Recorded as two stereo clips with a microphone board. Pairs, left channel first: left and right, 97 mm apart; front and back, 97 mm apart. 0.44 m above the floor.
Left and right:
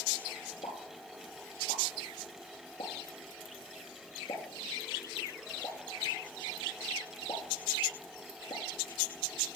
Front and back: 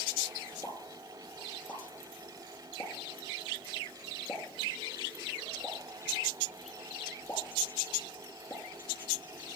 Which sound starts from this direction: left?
A pop, at 0.6 s.